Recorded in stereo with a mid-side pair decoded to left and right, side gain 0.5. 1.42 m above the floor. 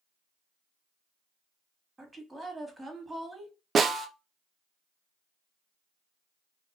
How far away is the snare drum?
About 0.6 m.